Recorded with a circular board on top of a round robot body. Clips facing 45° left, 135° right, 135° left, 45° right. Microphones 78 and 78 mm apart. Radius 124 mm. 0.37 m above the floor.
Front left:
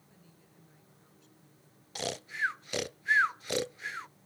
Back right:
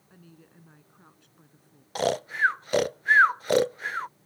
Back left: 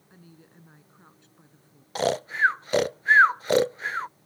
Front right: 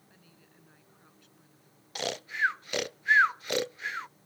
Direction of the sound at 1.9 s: 175° right.